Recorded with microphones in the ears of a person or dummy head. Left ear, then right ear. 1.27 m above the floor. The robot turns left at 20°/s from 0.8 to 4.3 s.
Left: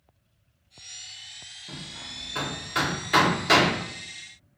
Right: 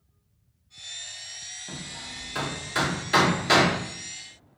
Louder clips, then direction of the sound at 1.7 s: Right 1 dB; 15° right (ahead or behind).